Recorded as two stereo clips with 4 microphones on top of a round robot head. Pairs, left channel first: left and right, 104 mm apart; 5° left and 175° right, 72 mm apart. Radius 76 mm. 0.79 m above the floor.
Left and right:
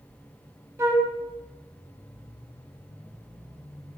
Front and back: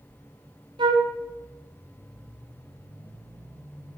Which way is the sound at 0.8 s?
160° right.